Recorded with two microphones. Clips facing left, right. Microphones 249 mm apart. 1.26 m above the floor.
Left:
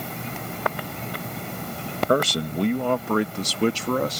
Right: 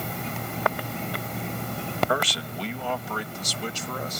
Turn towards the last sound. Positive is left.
turn(degrees=75)  # may be behind; listen again after turning